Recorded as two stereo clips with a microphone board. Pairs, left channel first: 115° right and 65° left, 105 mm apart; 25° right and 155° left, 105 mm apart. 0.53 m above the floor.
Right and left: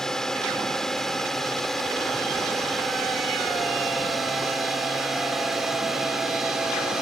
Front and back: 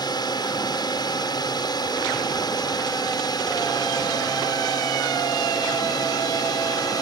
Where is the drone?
30° right; by 7.0 s 15° right.